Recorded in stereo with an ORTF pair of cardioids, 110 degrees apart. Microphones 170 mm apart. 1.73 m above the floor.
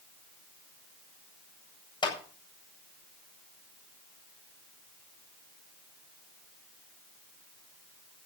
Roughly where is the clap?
Ahead left.